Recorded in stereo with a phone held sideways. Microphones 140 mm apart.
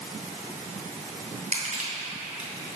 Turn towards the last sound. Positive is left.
turn(degrees=-55)  # may be behind; listen again after turning